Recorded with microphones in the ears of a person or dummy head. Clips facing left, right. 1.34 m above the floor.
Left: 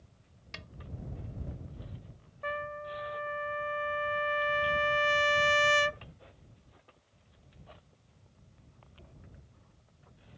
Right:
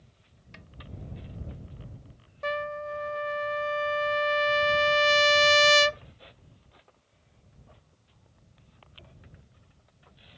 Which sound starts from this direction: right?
A trumpet, at 2.4 s.